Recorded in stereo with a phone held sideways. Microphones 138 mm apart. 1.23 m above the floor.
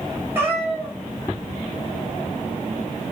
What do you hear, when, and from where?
0.3 s a cat meowing: 15° right (ahead or behind), 1.1 m